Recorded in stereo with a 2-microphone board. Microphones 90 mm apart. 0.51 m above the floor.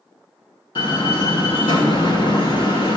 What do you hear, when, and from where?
0.8 s a door slam: 65° left (ahead or behind), 3.5 m